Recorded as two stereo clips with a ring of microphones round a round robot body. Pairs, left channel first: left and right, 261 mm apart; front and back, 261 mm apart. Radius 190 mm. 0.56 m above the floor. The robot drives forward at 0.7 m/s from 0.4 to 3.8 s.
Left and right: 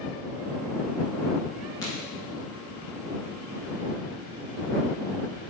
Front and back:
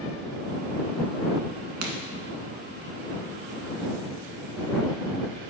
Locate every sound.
1.8 s a crack: 170° left, 1.2 m